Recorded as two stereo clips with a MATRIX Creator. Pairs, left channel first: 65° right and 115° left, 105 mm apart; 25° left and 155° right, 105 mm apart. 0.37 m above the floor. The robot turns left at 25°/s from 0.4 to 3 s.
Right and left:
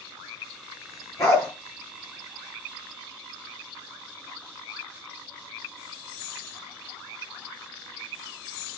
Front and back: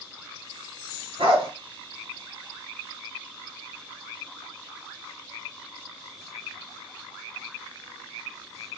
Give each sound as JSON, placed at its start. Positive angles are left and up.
{"t": 1.2, "sound": "a dog barking", "azimuth_deg": -130, "distance_m": 2.5}